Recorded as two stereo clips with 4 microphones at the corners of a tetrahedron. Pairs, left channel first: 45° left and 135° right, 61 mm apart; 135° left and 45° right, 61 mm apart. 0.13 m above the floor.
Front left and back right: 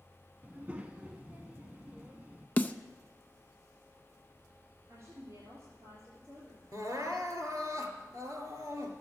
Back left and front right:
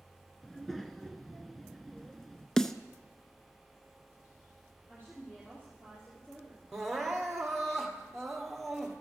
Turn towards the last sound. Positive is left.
turn(degrees=-135)